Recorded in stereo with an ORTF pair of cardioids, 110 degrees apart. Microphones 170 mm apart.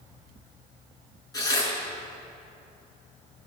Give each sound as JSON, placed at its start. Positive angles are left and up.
{"t": 1.3, "sound": "tearing paper", "azimuth_deg": 25, "distance_m": 4.5}